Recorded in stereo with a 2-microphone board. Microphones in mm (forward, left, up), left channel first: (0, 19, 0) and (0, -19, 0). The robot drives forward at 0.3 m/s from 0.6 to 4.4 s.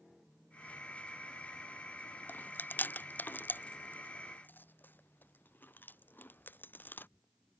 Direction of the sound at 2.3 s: 55° left (ahead or behind).